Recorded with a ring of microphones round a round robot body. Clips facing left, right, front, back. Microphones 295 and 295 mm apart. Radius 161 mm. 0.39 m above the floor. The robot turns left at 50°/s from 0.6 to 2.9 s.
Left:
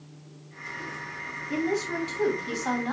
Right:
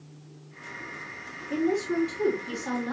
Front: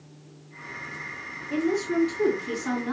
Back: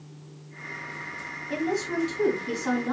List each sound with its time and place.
1.5 s a woman speaking: 155° left, 2.5 m; by 2.9 s 85° left, 2.5 m